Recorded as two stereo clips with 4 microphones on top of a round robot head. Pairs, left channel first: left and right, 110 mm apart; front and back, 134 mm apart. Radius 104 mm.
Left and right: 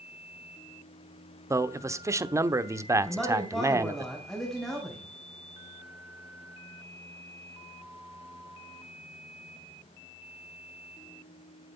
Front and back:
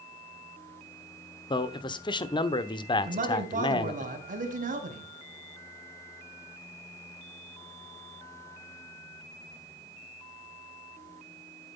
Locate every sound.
1.5 s a man speaking: 40° right, 1.0 m
3.0 s a man speaking: straight behind, 4 m